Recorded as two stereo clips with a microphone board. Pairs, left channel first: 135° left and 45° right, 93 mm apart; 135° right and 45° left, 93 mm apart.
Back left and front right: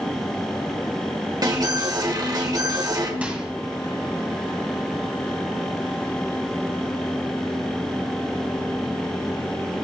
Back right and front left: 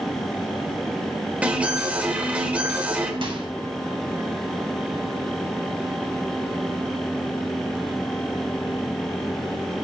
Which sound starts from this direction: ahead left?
A microwave, at 3.2 s.